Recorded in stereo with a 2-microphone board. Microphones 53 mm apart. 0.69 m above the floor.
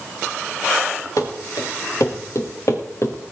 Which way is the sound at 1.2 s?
80° left.